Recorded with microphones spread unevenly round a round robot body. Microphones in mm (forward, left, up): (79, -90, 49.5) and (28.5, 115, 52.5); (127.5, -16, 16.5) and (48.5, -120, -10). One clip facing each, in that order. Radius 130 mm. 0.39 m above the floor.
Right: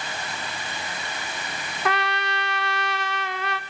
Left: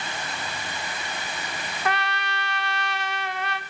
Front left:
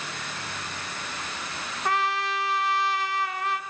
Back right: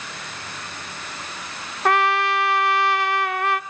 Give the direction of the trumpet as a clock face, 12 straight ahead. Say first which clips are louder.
Right 3 dB, back right 7 dB; 3 o'clock.